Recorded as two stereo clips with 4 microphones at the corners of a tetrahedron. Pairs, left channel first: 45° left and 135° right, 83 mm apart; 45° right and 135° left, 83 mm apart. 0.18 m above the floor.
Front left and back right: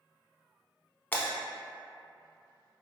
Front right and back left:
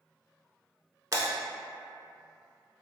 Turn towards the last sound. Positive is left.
turn(degrees=105)